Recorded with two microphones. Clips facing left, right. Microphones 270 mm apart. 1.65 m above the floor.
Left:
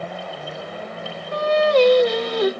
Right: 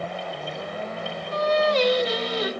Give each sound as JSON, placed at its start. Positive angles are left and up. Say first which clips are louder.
{"t": 1.3, "sound": "singing", "louder": "left 5 dB", "side_deg": 55, "distance_m": 1.2}